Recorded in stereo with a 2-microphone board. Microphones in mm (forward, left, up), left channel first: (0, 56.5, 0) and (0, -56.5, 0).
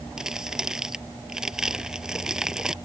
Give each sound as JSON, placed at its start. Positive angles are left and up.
{"t": 0.2, "sound": "crumpling", "side_deg": -5}